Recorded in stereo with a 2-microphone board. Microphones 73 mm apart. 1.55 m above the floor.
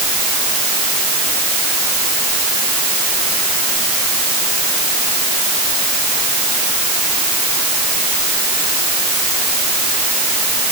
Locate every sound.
Only background noise.